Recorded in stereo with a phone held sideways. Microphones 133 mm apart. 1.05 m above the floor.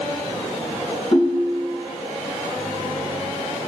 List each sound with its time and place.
1.1 s a ringtone: 45° left (ahead or behind), 3 m